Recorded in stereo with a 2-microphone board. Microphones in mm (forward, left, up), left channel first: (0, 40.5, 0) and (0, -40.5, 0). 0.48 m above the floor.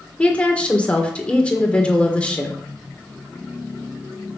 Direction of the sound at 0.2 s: 15° left (ahead or behind).